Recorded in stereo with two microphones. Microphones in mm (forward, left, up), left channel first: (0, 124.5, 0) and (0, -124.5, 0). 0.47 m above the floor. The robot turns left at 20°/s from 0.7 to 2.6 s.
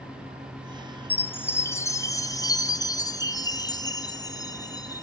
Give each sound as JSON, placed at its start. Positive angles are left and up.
{"t": 1.1, "sound": "a chime", "side_deg": 5, "distance_m": 0.7}